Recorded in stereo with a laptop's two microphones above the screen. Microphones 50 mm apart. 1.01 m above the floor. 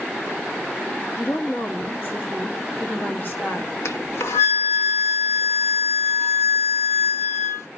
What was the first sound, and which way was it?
A woman speaking, 45° left (ahead or behind).